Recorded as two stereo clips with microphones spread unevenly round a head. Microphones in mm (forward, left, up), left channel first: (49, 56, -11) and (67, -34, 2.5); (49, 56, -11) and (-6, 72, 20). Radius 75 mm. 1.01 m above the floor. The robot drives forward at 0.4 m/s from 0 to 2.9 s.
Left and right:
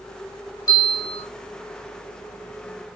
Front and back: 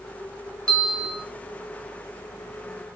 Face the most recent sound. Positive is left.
turn(degrees=85)